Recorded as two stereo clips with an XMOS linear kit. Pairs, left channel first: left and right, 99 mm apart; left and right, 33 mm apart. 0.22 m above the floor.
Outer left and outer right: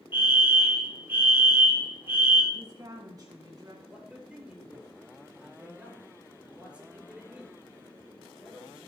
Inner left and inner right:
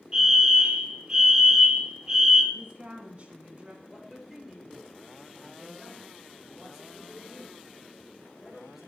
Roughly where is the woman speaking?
Right.